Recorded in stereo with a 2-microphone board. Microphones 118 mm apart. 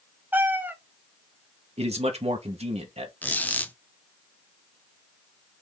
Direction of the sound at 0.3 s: 15° right (ahead or behind).